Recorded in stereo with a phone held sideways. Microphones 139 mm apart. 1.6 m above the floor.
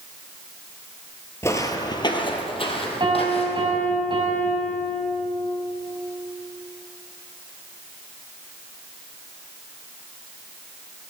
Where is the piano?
35° right (ahead or behind), 4.5 m.